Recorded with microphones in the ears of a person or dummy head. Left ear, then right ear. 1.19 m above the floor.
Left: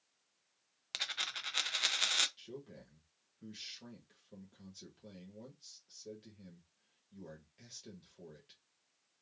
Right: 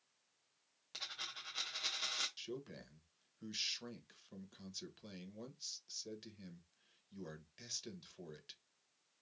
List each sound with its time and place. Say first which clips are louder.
0.9 s a dropped coin: left 7 dB; 35° left (ahead or behind), 0.5 m
2.4 s a man speaking: right 2 dB; 45° right (ahead or behind), 1.1 m